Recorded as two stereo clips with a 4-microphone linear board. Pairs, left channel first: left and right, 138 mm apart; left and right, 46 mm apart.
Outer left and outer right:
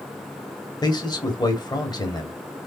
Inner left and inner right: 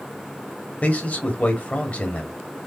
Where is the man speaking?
30° left (ahead or behind), 1.0 m.